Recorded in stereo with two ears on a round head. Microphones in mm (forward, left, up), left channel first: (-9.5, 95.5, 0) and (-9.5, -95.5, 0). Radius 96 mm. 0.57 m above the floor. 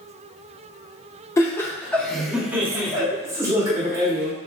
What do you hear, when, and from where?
1.4 s laughter: 15° left (ahead or behind), 0.8 m; by 4.3 s 15° right (ahead or behind), 1.7 m